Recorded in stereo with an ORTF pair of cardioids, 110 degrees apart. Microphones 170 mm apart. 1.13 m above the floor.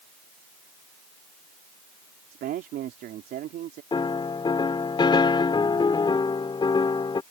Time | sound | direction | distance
2.3 | a man speaking | 65° right | ?
3.9 | a piano | 30° left | ?